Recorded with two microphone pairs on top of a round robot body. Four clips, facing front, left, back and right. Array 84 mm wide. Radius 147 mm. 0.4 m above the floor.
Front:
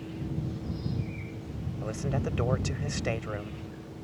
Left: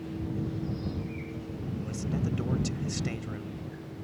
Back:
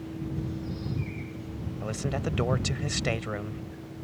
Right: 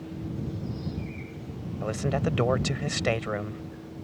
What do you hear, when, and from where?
1.8 s a man speaking: 95° right